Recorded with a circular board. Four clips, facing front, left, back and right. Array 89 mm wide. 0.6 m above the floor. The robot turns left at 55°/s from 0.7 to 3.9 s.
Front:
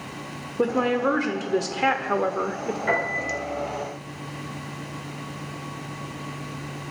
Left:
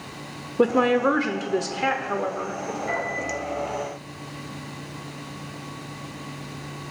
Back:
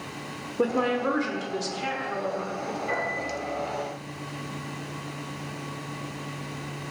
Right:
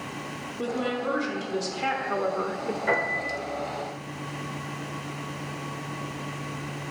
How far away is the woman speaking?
About 1.4 m.